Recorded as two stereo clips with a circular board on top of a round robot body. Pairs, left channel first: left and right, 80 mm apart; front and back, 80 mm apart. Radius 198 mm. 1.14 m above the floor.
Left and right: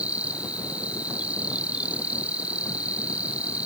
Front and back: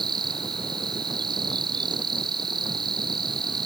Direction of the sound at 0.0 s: 160° right.